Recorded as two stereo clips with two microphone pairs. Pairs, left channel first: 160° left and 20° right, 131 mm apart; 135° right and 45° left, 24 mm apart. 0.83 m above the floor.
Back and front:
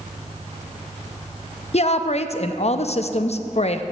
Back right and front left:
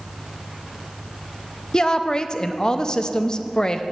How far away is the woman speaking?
About 0.5 m.